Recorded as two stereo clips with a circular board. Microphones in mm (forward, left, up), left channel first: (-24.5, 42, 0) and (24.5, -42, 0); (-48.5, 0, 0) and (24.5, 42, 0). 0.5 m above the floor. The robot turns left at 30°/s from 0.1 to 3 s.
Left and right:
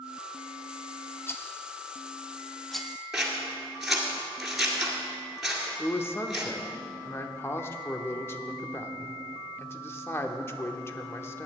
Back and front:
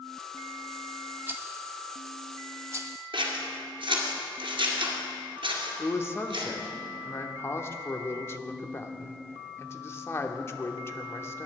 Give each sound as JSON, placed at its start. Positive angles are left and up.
{"t": 1.3, "sound": "a rattle", "azimuth_deg": 80, "distance_m": 0.7}
{"t": 3.1, "sound": "scissors", "azimuth_deg": 25, "distance_m": 2.0}
{"t": 5.8, "sound": "a man speaking", "azimuth_deg": 170, "distance_m": 0.9}